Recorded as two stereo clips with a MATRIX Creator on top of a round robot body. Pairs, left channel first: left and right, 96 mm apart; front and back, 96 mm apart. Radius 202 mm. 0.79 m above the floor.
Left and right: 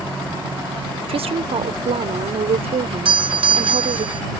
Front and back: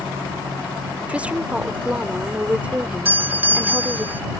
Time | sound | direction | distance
1.1 | a woman speaking | 105° right | ?
3.0 | a doorbell | 110° right | ?